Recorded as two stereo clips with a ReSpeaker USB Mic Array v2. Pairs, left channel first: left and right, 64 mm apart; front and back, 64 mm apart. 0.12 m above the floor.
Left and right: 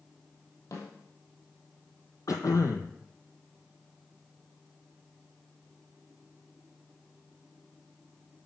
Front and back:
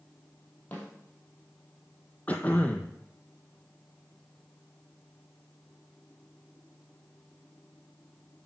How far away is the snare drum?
About 2.5 m.